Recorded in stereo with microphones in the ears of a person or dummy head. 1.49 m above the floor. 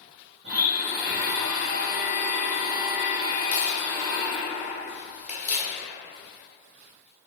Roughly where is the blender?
Right.